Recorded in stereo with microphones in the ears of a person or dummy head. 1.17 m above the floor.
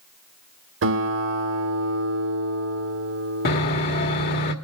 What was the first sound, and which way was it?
A guitar, 70° right (ahead or behind).